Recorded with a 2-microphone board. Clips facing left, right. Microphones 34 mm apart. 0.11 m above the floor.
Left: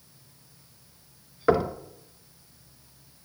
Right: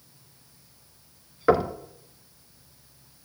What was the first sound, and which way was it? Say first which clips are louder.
Knocking: right 1 dB; 5° right (ahead or behind).